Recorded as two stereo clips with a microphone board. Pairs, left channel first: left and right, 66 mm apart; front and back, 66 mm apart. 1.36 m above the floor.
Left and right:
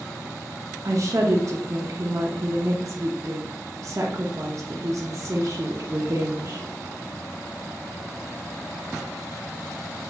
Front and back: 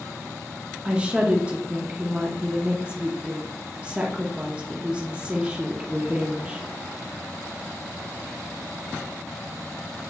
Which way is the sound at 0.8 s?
110° right.